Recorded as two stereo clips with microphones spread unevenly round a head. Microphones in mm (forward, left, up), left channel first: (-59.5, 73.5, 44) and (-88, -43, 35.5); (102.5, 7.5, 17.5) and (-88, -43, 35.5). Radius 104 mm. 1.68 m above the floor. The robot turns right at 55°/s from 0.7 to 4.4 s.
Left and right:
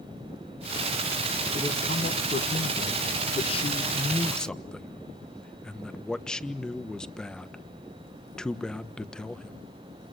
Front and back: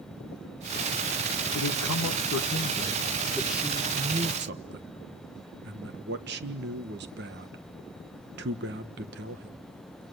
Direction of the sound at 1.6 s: Straight ahead.